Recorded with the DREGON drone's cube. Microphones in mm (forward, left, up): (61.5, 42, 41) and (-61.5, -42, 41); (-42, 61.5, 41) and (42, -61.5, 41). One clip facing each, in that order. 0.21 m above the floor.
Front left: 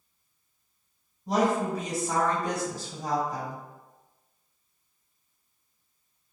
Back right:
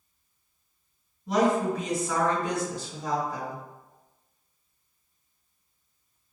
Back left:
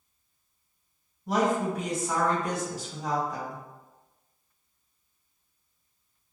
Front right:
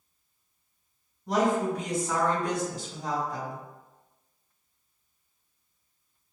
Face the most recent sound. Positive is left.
turn(degrees=45)